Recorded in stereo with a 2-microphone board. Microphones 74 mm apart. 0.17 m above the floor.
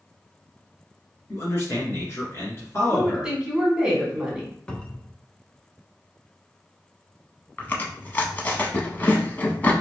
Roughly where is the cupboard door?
Centre.